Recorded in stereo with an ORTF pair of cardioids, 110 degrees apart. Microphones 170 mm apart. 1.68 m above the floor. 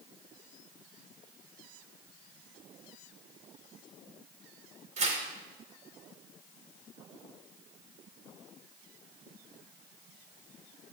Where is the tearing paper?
45° right, 5 m.